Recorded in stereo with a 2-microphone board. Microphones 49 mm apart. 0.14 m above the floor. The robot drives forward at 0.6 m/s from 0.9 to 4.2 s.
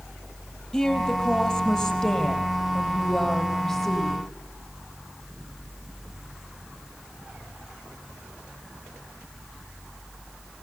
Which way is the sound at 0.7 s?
15° left (ahead or behind).